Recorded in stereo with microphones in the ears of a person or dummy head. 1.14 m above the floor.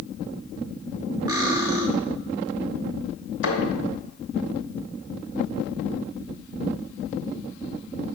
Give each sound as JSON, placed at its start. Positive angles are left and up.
{"t": 1.3, "sound": "cutlery clinking", "side_deg": -20, "distance_m": 0.8}
{"t": 3.4, "sound": "a thud", "side_deg": 70, "distance_m": 2.5}